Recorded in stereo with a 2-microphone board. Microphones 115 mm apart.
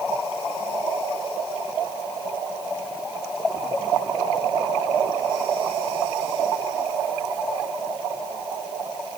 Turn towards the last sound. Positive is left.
No sound to turn to.